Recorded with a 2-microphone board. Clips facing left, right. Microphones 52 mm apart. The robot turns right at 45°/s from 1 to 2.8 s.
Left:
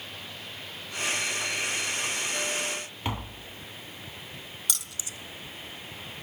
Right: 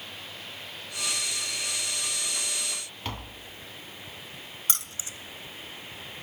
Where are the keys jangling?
35° right (ahead or behind), 0.8 m.